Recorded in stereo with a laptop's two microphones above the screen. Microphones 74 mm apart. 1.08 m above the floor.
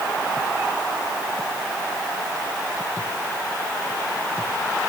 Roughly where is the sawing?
I don't hear sawing.